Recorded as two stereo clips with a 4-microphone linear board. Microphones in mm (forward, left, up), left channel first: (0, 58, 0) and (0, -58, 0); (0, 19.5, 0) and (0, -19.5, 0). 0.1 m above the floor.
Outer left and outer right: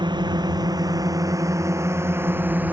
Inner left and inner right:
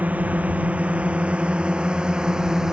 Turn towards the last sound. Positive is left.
turn(degrees=-15)  # may be behind; listen again after turning